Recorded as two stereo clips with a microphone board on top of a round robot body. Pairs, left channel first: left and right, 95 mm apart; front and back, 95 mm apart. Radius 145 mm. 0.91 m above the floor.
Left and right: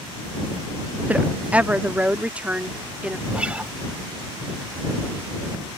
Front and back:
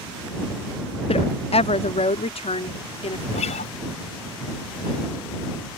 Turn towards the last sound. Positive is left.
turn(degrees=-10)